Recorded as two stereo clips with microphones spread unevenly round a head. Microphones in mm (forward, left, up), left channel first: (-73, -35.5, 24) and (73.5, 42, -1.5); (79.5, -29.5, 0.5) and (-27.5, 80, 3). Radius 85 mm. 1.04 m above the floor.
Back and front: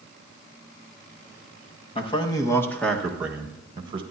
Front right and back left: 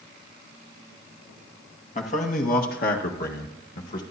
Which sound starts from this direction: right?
A man speaking, at 1.9 s.